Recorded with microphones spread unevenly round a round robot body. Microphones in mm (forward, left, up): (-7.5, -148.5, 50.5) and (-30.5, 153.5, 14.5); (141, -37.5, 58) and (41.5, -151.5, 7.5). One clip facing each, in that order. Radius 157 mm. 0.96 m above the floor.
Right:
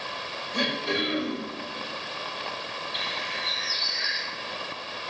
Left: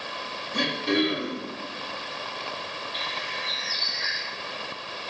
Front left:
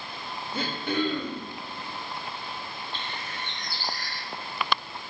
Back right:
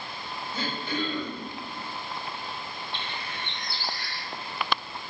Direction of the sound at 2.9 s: 5° right.